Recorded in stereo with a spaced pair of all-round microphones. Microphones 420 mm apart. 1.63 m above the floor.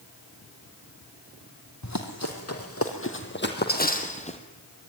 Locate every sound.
1.8 s running footsteps: 40° left (ahead or behind), 4 m; by 4.4 s 15° left (ahead or behind), 3.5 m